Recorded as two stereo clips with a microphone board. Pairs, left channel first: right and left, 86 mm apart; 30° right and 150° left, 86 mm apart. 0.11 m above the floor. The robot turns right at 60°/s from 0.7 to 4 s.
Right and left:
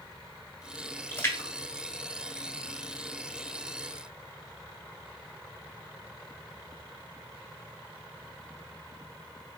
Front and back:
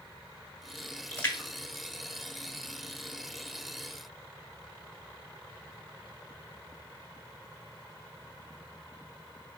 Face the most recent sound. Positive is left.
turn(degrees=95)